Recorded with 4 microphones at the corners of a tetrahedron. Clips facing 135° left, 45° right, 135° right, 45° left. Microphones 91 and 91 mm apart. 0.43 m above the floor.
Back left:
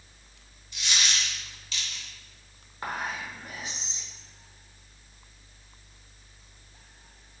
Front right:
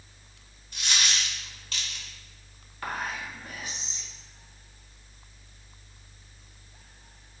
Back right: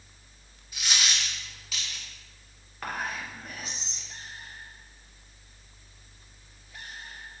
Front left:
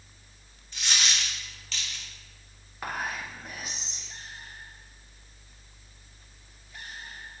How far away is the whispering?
About 0.8 m.